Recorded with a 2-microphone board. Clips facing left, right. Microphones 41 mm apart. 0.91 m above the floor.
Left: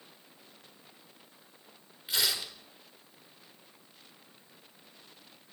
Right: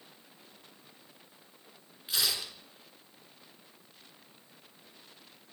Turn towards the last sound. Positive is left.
turn(degrees=5)  # may be behind; listen again after turning